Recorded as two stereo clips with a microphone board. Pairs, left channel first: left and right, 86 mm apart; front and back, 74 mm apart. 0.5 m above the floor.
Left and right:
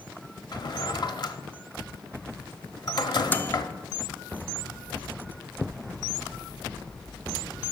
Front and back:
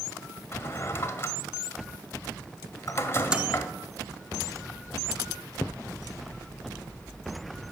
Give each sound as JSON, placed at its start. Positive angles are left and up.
{"t": 0.5, "sound": "a drawer", "azimuth_deg": 55, "distance_m": 0.8}
{"t": 3.3, "sound": "a microwave", "azimuth_deg": 120, "distance_m": 0.6}